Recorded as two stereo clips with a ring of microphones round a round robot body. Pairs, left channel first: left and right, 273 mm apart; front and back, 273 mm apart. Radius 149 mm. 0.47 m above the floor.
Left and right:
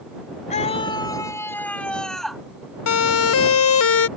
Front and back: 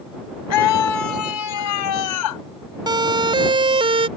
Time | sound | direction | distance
0.5 | a scream | 25° left | ?
2.9 | a siren | 105° left | ?